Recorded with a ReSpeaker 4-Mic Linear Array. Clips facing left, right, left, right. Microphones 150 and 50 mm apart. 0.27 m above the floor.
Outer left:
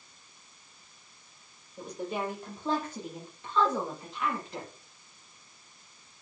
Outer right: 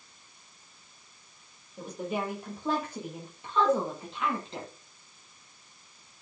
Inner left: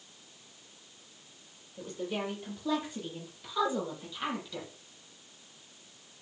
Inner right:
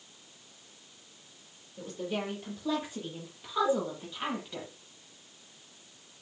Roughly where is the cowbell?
Right.